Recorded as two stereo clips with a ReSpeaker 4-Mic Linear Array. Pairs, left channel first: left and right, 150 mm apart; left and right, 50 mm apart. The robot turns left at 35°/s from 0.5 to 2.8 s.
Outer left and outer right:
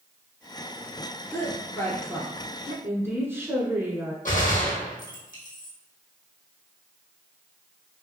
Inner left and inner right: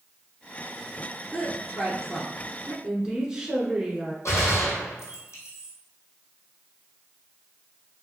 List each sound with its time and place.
1.3 s a woman speaking: 20° left (ahead or behind), 1.2 m; by 2.7 s 10° right (ahead or behind), 1.2 m
2.8 s a woman speaking: 15° right (ahead or behind), 1.2 m
4.2 s a gunshot: 60° left (ahead or behind), 1.6 m